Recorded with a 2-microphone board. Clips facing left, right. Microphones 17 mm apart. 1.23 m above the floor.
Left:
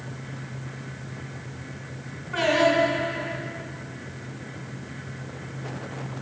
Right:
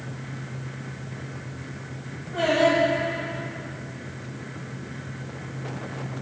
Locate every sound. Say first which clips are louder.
2.3 s singing: even; 50° left (ahead or behind), 2.5 m